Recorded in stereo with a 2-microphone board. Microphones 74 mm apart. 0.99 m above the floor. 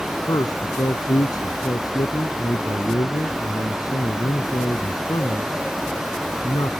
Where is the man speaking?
60° left (ahead or behind).